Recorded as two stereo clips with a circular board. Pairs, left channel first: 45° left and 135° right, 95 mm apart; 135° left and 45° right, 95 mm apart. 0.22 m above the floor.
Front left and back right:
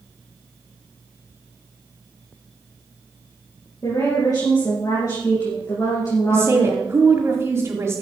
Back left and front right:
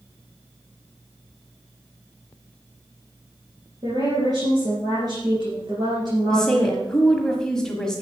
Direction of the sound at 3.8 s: 5° right.